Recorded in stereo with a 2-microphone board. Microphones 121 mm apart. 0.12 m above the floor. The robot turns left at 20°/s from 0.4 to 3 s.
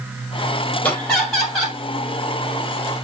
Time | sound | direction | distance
0.8 | laughter | 10° left (ahead or behind) | 3.5 m